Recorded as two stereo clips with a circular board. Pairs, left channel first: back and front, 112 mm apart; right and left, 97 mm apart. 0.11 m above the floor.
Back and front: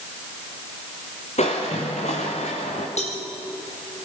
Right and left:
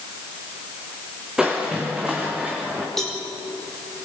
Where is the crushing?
175° left, 5 m.